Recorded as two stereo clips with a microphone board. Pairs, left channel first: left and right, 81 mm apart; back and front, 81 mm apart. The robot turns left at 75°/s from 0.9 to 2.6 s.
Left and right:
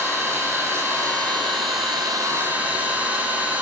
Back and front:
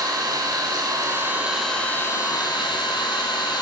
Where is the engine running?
35° right, 4 m; by 3.6 s 160° right, 4 m.